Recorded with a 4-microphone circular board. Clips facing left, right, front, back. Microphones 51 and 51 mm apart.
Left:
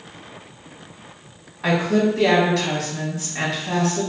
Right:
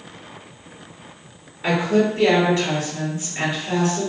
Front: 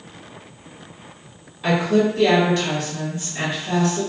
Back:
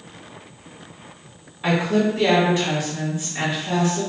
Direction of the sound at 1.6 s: 105° left.